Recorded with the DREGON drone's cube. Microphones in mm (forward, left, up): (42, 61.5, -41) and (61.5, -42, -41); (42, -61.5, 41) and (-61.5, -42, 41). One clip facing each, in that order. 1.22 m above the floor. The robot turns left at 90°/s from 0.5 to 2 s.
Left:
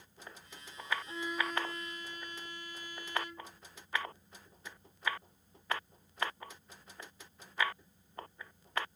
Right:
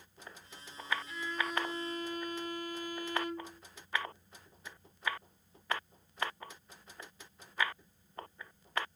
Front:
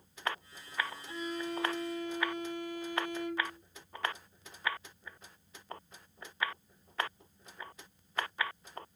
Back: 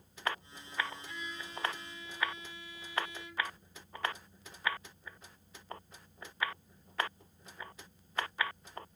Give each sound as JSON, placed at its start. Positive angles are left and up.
{"t": 1.1, "sound": "a violin", "azimuth_deg": 45}